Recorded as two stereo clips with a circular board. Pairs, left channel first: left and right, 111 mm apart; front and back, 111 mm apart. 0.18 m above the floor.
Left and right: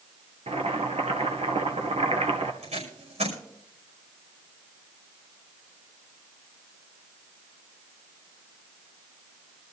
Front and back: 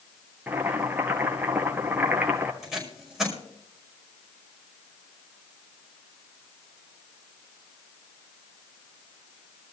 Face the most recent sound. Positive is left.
turn(degrees=-90)